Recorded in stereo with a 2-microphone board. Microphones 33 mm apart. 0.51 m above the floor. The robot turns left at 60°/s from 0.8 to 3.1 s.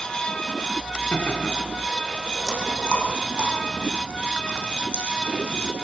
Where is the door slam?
I don't hear a door slam.